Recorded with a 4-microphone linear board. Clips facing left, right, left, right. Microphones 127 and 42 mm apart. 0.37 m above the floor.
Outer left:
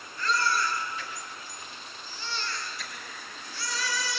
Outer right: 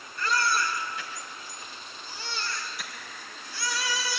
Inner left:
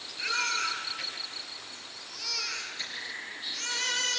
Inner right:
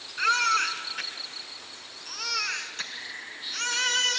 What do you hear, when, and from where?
0.2 s a baby crying: 75° right (ahead or behind), 3 m